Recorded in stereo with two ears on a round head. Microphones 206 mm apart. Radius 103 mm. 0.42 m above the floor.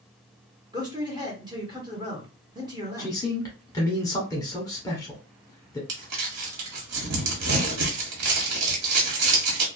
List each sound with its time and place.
0.7 s a man speaking: 20° right (ahead or behind), 1.0 m
3.0 s a man speaking: 15° left (ahead or behind), 0.9 m
5.9 s crumpling: 80° right, 1.0 m